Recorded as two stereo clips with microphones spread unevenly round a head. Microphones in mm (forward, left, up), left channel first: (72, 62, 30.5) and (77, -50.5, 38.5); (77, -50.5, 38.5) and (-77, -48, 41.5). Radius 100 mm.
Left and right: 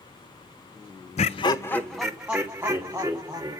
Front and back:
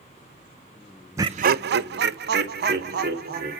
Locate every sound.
1.2 s laughter: 105° left, 0.6 m; by 3.6 s 160° right, 3.5 m